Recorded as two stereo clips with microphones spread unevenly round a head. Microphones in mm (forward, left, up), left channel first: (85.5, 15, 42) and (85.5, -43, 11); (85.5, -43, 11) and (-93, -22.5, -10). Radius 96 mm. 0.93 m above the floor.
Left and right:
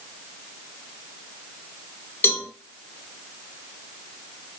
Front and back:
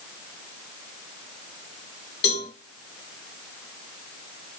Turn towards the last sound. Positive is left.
turn(degrees=25)